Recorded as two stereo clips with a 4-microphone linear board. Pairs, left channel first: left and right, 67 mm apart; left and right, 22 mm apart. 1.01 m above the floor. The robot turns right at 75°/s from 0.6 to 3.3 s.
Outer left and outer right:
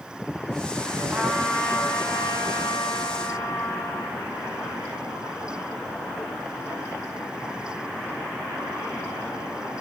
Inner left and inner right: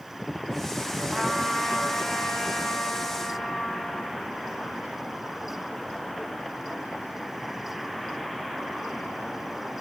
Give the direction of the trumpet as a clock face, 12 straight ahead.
1 o'clock.